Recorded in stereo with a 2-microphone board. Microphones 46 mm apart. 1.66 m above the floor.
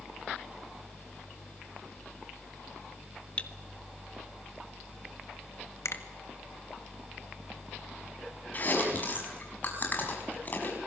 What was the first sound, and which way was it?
Cutlery clinking, 25° left (ahead or behind).